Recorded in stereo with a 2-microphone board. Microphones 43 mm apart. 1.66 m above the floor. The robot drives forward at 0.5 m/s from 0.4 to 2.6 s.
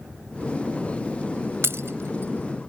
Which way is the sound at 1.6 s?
75° right (ahead or behind).